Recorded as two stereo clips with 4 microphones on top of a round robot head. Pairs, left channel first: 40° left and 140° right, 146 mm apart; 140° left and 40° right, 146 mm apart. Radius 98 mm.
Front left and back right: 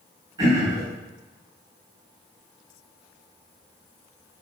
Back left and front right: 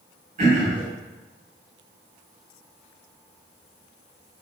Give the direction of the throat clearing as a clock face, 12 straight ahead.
3 o'clock.